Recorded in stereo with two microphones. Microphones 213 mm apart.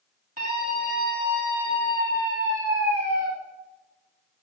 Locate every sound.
0.4 s a scream: 45° right (ahead or behind), 3.5 m; by 3.3 s 70° right (ahead or behind), 4.5 m